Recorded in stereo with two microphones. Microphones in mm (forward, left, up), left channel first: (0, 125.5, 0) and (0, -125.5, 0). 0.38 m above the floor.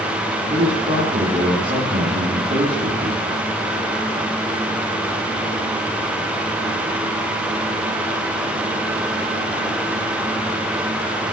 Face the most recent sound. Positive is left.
turn(degrees=-20)  # may be behind; listen again after turning